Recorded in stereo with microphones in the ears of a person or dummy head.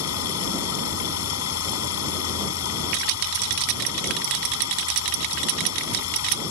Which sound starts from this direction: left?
Running water, at 0.0 s.